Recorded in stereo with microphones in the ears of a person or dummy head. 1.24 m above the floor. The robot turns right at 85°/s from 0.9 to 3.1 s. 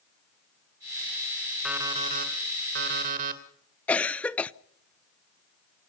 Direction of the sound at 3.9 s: Centre (ahead or behind).